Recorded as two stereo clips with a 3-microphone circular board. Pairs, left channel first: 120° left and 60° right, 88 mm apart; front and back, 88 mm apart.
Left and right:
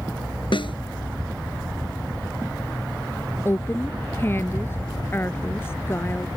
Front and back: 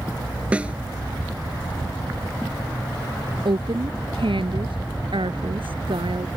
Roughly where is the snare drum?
Left.